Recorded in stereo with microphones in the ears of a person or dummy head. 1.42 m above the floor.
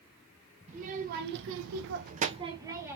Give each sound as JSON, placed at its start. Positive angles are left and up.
{"t": 0.7, "sound": "a child speaking", "side_deg": -40, "distance_m": 1.2}